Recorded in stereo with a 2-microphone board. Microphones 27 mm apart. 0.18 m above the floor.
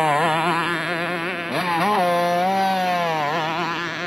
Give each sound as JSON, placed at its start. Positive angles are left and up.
{"t": 0.0, "sound": "a motorcycle", "side_deg": -25}